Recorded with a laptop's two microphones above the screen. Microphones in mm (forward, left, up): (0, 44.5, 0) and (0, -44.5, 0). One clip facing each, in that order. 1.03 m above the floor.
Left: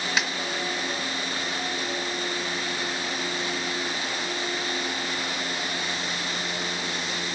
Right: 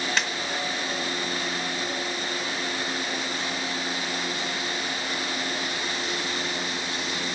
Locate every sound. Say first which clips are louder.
0.2 s a snare drum: left 2 dB; 5° left (ahead or behind), 1.2 m